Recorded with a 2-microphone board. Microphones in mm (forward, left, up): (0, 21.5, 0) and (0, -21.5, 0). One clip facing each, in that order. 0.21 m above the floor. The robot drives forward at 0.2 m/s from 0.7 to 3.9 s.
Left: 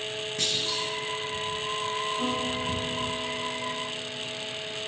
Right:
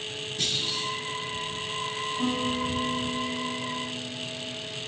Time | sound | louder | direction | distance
0.4 | a clunk | even | 60° left (ahead or behind) | 3 m
2.2 | a piano | right 1 dB | 45° left (ahead or behind) | 4 m